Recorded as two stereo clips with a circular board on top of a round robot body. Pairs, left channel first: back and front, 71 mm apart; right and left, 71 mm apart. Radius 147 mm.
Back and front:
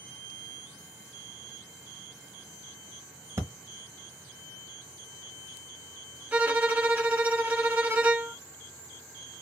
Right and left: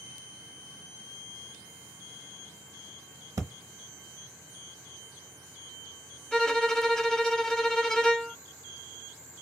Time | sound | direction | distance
3.4 | breathing | 50° left | 0.8 m
6.3 | a violin | 25° right | 1.1 m